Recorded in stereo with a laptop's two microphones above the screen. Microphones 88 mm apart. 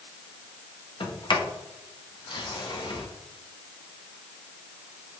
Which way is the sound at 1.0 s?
65° left (ahead or behind).